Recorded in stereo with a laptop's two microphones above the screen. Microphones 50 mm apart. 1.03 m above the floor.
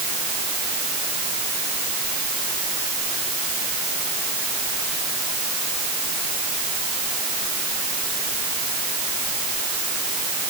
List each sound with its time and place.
Only background noise.